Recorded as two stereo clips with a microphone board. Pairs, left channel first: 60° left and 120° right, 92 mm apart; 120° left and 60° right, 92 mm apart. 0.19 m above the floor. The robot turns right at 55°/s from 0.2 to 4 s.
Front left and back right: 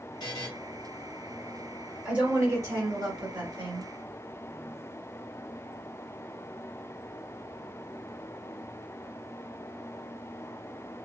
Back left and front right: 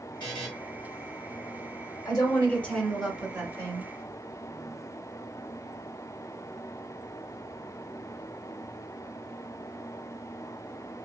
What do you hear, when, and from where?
0.2 s a buzzer: 90° left, 1.8 m; by 0.5 s 105° left, 1.8 m
2.0 s a woman speaking: 160° left, 1.7 m; by 3.9 s 95° right, 1.7 m